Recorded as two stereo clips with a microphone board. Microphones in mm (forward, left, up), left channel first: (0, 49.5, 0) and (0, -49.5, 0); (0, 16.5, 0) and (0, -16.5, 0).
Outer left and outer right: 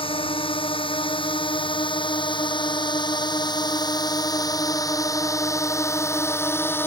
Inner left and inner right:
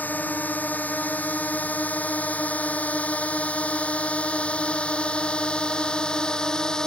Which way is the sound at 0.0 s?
65° left (ahead or behind).